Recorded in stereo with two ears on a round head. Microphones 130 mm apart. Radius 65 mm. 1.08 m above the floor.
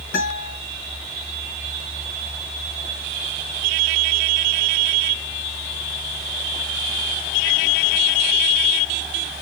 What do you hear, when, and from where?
0.1 s a guitar: 70° left (ahead or behind), 6 m